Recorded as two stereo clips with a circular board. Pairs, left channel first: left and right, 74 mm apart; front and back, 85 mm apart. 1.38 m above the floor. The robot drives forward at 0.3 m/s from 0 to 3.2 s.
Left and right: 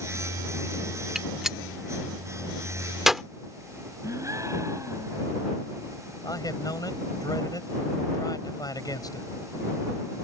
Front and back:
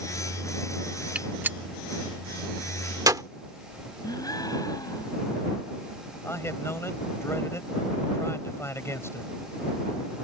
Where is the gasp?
45° right.